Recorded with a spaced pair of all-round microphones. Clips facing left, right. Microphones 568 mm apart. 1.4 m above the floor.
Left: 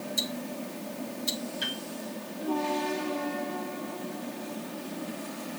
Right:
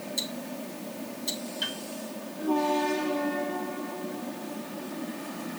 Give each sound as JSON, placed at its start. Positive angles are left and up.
{"t": 0.2, "sound": "ticking", "side_deg": 30, "distance_m": 1.2}
{"t": 1.6, "sound": "a piano", "side_deg": 50, "distance_m": 2.0}